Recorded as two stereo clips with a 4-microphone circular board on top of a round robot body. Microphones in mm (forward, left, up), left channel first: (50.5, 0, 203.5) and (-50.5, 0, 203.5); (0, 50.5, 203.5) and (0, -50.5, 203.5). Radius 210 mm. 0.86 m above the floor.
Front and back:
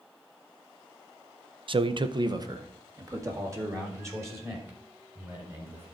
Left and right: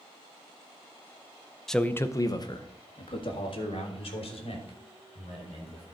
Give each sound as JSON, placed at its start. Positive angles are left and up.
{"t": 1.7, "sound": "a man speaking", "azimuth_deg": 175, "distance_m": 0.8}